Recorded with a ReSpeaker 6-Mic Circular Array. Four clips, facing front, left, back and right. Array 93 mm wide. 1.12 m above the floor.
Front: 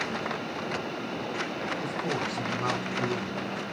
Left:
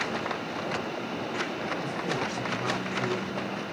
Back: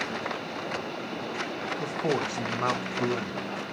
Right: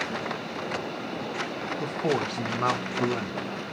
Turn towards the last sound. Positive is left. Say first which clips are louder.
# right 4 dB, back 6 dB
turn(degrees=-130)